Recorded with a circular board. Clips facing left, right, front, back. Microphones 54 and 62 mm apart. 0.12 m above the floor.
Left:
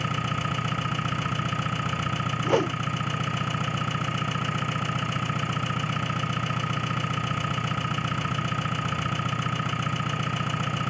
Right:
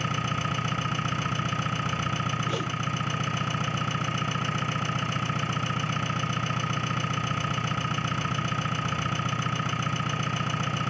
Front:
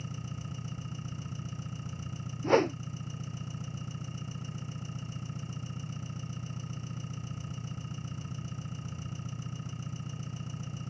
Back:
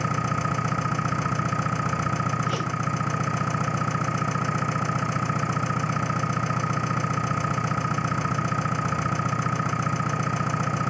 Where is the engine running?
Straight behind.